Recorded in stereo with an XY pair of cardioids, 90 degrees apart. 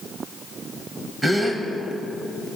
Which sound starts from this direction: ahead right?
A gasp, at 1.2 s.